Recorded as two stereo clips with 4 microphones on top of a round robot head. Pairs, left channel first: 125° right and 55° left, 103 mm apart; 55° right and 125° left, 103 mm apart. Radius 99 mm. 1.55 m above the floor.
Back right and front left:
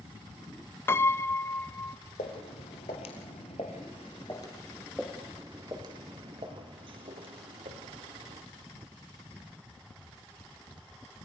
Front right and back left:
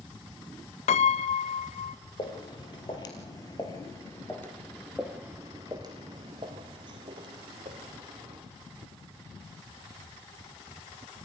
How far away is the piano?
About 0.6 m.